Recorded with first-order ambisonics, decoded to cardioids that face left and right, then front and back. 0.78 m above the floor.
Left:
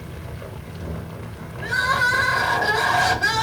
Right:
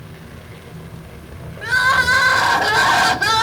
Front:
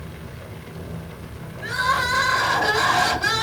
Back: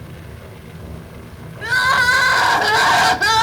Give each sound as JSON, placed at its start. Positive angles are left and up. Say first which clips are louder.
{"t": 1.6, "sound": "crying", "louder": "right 5 dB, back 7 dB", "azimuth_deg": -145, "distance_m": 0.8}